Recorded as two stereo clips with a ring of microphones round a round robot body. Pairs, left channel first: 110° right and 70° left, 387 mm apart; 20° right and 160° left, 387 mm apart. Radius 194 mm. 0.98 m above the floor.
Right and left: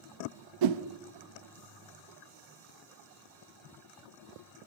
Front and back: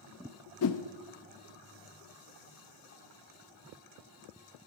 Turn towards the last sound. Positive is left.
turn(degrees=30)